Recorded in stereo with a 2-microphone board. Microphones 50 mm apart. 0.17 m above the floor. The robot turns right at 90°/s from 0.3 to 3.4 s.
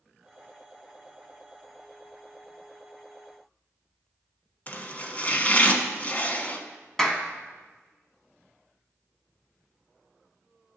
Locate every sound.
4.7 s chopping: 30° left (ahead or behind), 1.0 m
7.0 s a clap: 10° left (ahead or behind), 1.2 m